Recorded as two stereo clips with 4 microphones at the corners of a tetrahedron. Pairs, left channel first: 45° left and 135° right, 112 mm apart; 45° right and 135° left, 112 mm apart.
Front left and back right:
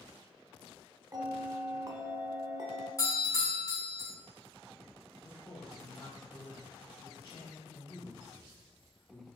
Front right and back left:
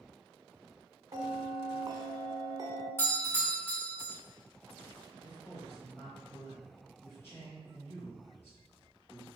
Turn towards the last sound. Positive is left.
turn(degrees=15)